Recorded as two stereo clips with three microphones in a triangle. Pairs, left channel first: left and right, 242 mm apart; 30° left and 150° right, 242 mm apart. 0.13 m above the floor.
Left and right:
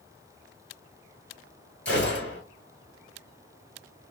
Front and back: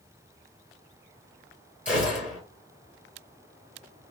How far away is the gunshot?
About 2.5 m.